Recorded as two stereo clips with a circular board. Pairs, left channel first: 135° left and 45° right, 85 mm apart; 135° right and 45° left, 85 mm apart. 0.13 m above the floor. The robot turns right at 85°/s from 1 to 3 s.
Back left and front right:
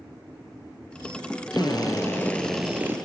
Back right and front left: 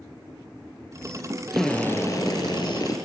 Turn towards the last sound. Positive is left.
turn(degrees=-100)